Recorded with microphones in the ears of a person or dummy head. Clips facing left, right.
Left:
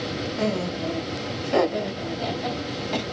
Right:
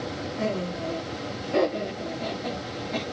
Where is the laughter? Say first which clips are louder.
Left 2 dB; 75° left (ahead or behind), 1.0 m.